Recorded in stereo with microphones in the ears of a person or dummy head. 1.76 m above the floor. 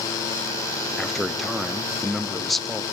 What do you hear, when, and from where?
1.0 s a man speaking: centre (ahead or behind), 0.9 m